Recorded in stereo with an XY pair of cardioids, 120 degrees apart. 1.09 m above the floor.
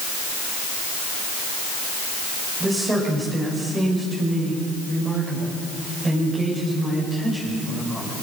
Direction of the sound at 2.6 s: 20° right.